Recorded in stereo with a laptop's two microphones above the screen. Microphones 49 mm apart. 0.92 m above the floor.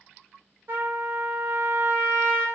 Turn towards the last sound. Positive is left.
turn(degrees=-50)  # may be behind; listen again after turning